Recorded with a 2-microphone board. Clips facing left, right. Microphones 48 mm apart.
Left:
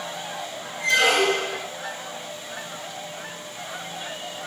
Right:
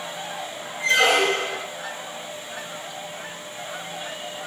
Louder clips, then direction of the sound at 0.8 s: Right 1 dB; 25° right (ahead or behind).